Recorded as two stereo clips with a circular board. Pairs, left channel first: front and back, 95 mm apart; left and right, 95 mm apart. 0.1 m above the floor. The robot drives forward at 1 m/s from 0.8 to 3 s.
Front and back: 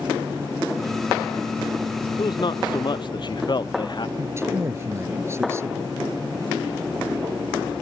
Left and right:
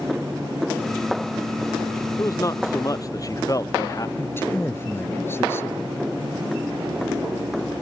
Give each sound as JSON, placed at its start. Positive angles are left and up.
{"t": 2.2, "sound": "a man speaking", "azimuth_deg": 35}
{"t": 4.2, "sound": "a man speaking", "azimuth_deg": 140}